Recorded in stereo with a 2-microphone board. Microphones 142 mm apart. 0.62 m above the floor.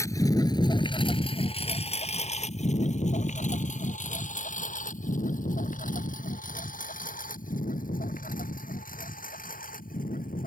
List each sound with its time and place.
0.0 s a lawn mower: 20° left (ahead or behind); by 10.5 s 75° left (ahead or behind)